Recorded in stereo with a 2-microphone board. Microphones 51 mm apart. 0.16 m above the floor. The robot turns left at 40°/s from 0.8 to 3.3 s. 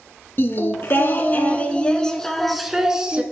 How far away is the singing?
About 0.7 m.